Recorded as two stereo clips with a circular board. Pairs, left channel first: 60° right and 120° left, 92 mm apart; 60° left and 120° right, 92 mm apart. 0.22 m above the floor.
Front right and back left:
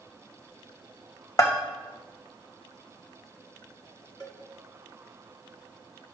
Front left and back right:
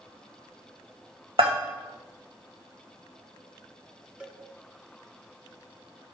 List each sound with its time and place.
1.4 s a bell: 110° right, 3 m
4.2 s a cowbell: 45° right, 1.8 m